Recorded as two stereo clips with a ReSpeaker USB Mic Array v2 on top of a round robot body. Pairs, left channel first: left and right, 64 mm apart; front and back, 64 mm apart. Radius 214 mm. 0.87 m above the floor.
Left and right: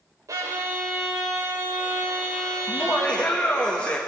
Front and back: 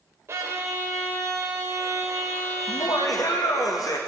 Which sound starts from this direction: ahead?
Laughter, at 2.7 s.